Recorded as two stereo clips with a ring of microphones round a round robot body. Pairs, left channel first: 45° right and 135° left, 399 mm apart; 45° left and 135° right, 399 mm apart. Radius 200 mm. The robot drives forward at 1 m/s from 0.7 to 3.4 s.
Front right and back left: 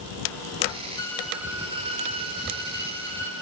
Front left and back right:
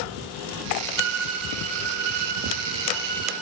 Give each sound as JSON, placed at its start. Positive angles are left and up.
{"t": 1.0, "sound": "a violin", "azimuth_deg": -125, "distance_m": 1.3}